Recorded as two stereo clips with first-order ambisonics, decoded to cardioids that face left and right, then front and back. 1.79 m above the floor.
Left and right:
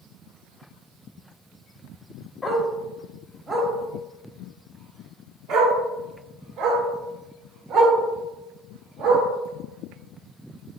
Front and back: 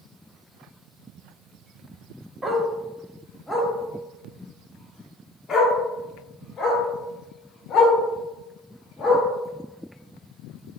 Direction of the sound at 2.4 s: 150° left.